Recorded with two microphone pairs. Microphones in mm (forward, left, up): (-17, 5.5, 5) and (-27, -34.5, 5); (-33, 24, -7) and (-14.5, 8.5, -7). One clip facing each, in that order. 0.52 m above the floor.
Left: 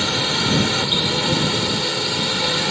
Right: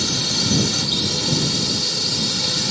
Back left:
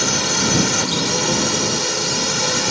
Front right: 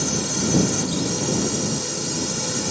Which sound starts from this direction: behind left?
A drone, at 0.0 s.